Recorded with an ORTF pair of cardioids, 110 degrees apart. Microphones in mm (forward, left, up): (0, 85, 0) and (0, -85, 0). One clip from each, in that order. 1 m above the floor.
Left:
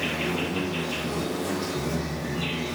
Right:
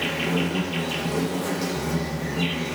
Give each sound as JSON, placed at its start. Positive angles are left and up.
{"t": 0.0, "sound": "an insect", "azimuth_deg": -60, "distance_m": 1.9}